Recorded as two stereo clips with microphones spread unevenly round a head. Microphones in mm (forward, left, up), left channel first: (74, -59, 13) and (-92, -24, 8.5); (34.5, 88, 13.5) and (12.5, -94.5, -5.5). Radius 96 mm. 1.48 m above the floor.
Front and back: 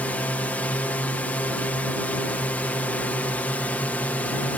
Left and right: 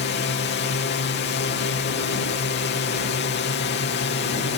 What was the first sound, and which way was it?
A drone, 70° left.